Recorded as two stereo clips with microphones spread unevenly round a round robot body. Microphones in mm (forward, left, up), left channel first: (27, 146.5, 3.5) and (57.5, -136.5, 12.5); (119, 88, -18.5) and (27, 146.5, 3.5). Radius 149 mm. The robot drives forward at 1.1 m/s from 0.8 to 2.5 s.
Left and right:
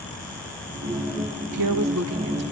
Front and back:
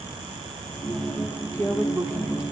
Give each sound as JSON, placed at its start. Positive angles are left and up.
{"t": 1.5, "sound": "a woman speaking", "azimuth_deg": -105, "distance_m": 1.1}